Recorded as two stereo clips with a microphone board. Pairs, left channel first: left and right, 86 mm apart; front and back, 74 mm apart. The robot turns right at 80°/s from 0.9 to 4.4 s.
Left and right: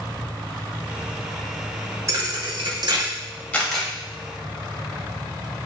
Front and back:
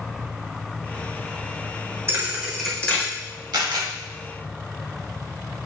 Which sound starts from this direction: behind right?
A thud, at 2.1 s.